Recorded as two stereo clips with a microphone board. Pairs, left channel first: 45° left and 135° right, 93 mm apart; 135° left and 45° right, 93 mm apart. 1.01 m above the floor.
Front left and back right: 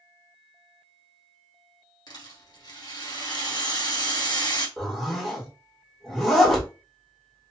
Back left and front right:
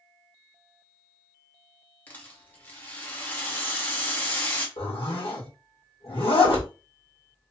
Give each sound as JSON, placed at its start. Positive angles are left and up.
{"t": 2.1, "sound": "a rattle", "azimuth_deg": 70, "distance_m": 0.9}
{"t": 4.8, "sound": "a zipper", "azimuth_deg": 130, "distance_m": 1.2}